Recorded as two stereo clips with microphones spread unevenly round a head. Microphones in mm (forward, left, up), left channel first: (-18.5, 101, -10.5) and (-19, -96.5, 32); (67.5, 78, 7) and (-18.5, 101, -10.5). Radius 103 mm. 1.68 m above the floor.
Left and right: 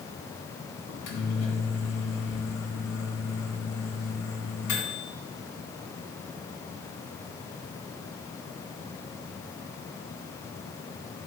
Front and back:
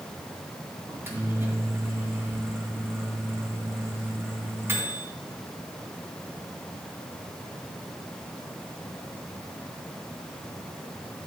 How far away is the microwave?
About 2.5 m.